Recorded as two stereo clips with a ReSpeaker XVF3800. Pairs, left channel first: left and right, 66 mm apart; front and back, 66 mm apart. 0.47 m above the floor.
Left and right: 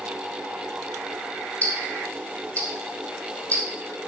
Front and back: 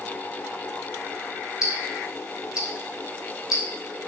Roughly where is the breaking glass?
I don't hear breaking glass.